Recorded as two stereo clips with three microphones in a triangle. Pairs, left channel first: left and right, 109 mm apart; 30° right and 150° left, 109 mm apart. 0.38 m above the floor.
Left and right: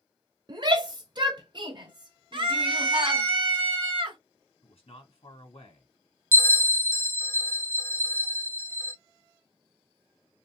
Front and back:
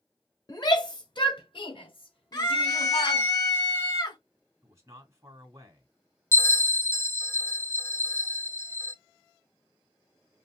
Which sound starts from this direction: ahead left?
A bell, at 6.3 s.